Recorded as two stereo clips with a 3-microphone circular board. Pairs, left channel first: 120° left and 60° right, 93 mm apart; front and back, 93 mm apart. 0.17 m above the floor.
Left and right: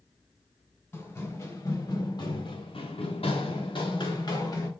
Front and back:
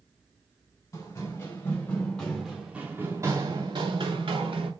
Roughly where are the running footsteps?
Ahead left.